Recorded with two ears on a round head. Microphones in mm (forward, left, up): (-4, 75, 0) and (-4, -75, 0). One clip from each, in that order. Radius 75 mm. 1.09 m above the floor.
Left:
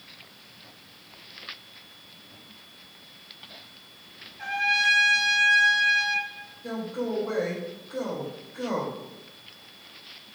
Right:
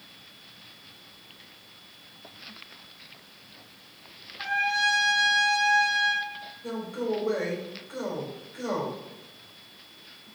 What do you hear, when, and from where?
4.4 s a trumpet: 5° right (ahead or behind), 1.8 m
6.6 s a man speaking: 60° right (ahead or behind), 3.5 m